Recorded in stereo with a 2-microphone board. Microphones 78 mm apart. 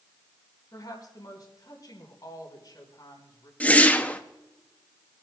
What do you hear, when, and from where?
0.7 s a woman speaking: 55° left (ahead or behind), 4.5 m
3.6 s a whoosh: 20° left (ahead or behind), 0.7 m